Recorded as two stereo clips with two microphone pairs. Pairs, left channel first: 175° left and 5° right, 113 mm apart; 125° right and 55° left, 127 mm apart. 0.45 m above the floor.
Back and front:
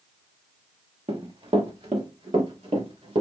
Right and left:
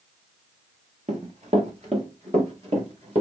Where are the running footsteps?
30° left, 2.5 m; by 3.2 s 20° left, 4.5 m.